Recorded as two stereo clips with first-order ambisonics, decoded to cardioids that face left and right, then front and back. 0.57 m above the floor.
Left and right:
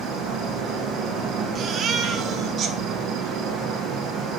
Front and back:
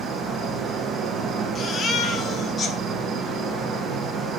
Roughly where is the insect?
Behind right.